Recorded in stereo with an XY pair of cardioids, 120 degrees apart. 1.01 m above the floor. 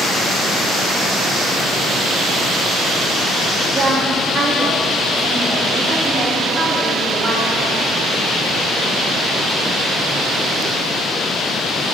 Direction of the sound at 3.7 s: 40° right.